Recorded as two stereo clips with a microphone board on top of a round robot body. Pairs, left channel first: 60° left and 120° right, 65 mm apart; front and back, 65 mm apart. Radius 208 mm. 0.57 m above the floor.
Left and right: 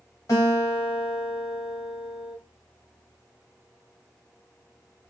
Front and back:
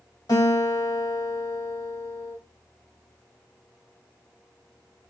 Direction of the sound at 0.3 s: 20° left.